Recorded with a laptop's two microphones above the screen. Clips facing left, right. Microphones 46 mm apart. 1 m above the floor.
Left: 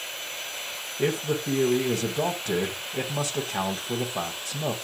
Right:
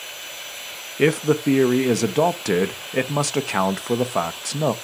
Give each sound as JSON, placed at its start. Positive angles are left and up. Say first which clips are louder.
{"t": 1.0, "sound": "a man speaking", "louder": "right 8 dB", "side_deg": -75, "distance_m": 0.7}